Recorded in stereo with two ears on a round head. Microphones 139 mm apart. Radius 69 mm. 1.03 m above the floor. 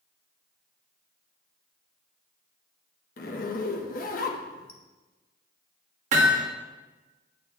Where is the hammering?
50° right (ahead or behind), 1.2 m.